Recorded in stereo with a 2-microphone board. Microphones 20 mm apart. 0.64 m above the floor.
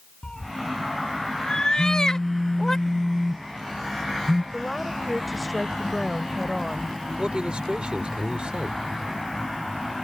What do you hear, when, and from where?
0.2 s a cat meowing: 50° left (ahead or behind); by 2.8 s 25° left (ahead or behind)
1.8 s a phone buzzing: 15° left (ahead or behind)
4.5 s a woman speaking: 5° right (ahead or behind)
7.2 s a man speaking: 65° right (ahead or behind)